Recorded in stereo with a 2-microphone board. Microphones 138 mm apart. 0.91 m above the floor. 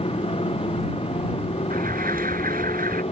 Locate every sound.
0.0 s a motorcycle: 40° left (ahead or behind); by 3.1 s 45° left (ahead or behind)
1.7 s an alarm: 80° right